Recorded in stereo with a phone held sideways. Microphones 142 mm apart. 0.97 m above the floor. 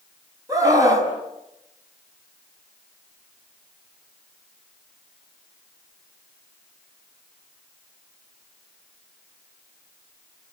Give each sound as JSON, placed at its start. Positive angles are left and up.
{"t": 0.5, "sound": "a scream", "side_deg": -25, "distance_m": 7.0}